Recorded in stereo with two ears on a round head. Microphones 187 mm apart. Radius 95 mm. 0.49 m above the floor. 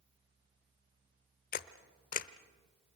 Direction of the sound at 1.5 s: 40° left (ahead or behind).